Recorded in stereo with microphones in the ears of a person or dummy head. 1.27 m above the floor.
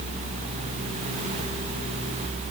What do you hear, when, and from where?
Only background noise.